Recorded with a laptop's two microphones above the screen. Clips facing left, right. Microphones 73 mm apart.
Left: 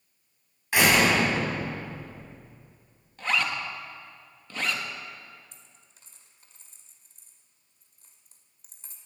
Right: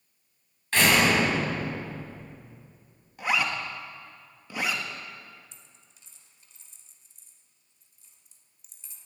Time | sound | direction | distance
0.7 | a door slam | 15° left (ahead or behind) | 5.5 m
3.2 | a zipper | 15° right (ahead or behind) | 1.3 m
5.5 | a dropped coin | 55° left (ahead or behind) | 1.7 m